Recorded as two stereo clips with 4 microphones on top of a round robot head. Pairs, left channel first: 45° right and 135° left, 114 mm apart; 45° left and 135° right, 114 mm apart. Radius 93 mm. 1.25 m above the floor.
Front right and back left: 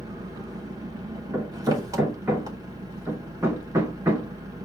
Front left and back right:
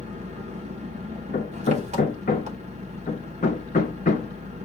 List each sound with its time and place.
0.0 s an engine running: 165° right, 0.7 m
1.3 s hammering: 65° left, 0.7 m